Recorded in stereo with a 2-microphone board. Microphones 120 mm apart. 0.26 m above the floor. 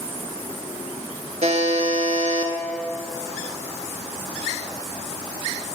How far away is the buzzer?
About 0.7 m.